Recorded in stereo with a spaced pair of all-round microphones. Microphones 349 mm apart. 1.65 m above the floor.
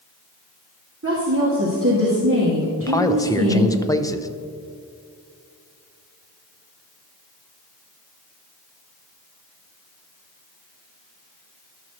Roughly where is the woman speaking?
Right.